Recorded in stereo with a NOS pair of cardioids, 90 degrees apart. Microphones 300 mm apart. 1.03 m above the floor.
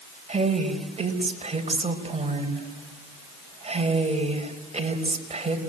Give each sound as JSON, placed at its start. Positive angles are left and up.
{"t": 0.3, "sound": "a woman speaking", "azimuth_deg": -20, "distance_m": 5.0}